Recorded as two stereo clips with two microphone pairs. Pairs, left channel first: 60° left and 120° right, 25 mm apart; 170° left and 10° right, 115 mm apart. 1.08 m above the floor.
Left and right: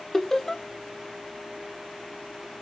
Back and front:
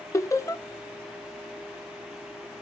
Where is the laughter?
130° left, 0.8 m.